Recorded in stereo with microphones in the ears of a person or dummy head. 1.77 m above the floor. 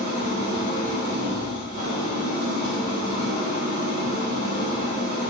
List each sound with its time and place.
0.0 s an engine running: 60° right (ahead or behind), 1.5 m